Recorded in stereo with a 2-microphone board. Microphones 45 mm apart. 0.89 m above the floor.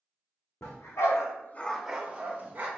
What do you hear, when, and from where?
0.6 s a dog barking: 75° left (ahead or behind), 1.3 m; by 2.7 s 40° right (ahead or behind), 1.5 m